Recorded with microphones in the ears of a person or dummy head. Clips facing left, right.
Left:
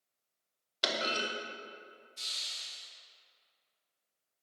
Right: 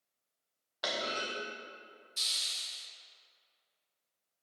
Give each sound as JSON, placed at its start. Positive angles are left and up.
{"t": 0.8, "sound": "a clunk", "side_deg": 40, "distance_m": 1.0}
{"t": 2.2, "sound": "a hiss", "side_deg": -75, "distance_m": 1.2}